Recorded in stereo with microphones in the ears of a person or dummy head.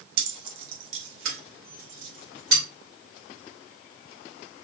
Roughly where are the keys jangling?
Right.